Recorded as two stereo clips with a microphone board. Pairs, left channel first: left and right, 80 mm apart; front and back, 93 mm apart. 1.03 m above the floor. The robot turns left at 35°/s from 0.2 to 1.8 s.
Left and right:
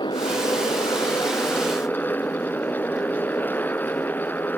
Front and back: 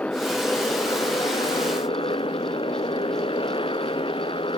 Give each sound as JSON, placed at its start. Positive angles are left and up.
{"t": 0.0, "sound": "a motorcycle", "azimuth_deg": 75}